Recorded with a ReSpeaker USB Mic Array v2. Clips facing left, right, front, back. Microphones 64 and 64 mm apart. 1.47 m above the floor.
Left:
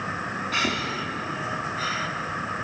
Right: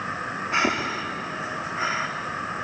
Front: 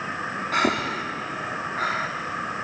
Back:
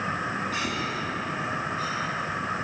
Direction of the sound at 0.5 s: 25° right.